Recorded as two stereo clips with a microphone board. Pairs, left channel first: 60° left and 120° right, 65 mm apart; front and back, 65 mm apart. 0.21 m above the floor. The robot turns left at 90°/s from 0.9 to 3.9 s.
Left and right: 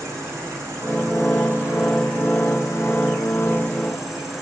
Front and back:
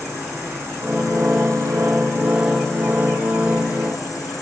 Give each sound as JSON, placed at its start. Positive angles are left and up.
{"t": 0.0, "sound": "an insect", "azimuth_deg": -120, "distance_m": 5.0}